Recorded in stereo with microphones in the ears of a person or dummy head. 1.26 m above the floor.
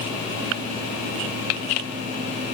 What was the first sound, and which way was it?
Only background noise.